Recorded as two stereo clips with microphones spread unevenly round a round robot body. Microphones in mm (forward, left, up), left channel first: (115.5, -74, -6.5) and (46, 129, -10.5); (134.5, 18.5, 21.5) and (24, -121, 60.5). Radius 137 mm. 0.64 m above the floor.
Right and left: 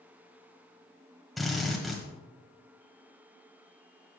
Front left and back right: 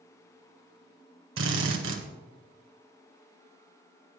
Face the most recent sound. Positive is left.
turn(degrees=-160)